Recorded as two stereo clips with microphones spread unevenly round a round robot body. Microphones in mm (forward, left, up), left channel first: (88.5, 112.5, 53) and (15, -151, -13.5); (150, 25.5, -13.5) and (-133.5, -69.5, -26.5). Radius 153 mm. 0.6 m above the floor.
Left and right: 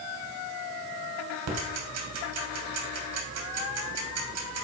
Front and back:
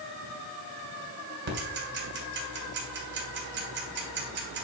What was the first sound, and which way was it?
Ticking, 110° right.